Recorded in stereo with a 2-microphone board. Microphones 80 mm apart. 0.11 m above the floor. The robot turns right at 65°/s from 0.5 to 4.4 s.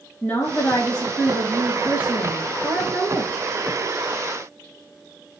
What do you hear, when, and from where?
0.2 s a woman speaking: 120° left, 1.3 m; by 3.4 s 45° right, 1.3 m